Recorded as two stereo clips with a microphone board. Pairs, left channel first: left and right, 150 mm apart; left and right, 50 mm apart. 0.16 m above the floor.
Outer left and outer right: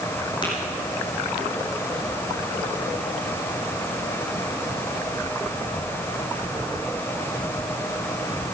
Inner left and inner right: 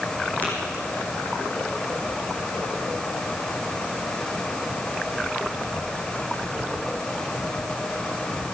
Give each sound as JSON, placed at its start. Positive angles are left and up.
{"t": 0.4, "sound": "tapping", "side_deg": 30, "distance_m": 6.0}